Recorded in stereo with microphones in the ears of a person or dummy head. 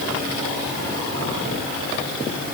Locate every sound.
Only background noise.